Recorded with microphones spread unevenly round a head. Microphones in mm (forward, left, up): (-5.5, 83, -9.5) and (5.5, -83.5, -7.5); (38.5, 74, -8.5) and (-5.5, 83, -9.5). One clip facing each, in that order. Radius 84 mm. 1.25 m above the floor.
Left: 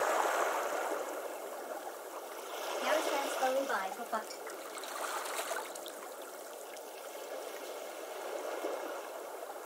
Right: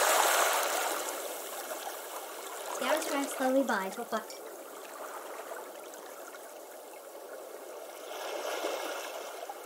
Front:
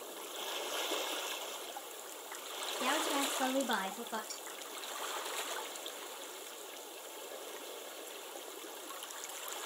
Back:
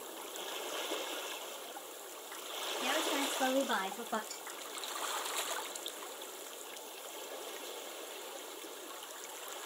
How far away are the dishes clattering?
About 3.5 m.